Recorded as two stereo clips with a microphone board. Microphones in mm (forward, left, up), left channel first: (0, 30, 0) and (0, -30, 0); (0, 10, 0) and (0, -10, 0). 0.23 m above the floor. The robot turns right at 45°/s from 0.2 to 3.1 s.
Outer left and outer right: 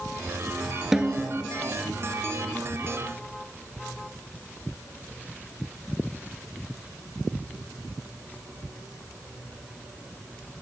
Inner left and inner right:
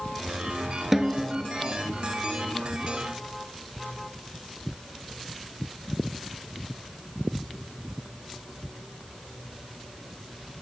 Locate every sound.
0.9 s a snare drum: 5° right (ahead or behind), 0.6 m; by 1.4 s 30° right (ahead or behind), 0.6 m